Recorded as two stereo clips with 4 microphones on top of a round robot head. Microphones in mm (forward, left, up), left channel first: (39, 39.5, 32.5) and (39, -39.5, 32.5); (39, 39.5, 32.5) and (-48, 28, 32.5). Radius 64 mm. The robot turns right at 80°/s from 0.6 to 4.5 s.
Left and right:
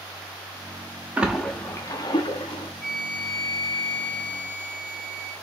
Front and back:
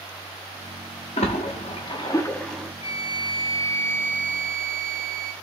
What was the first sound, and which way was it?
A splash, 20° right.